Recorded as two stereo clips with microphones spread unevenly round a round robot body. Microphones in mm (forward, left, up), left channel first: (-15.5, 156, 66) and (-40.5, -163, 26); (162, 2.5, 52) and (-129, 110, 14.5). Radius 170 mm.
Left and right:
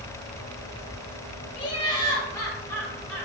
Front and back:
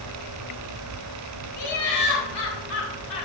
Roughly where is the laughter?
Ahead.